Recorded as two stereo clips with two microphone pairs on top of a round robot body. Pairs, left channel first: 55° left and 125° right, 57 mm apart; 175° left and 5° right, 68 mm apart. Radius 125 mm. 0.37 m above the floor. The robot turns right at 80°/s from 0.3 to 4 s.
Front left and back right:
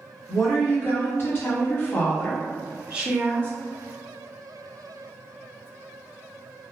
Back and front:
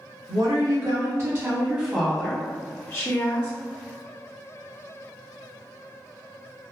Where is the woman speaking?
30° right, 1.1 m; by 3.5 s 135° right, 1.1 m.